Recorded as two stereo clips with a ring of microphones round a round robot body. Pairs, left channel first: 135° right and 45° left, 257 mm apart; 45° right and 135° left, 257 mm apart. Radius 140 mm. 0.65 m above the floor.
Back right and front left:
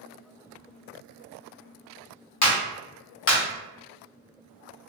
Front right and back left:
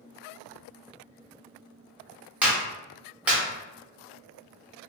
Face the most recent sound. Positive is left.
turn(degrees=-140)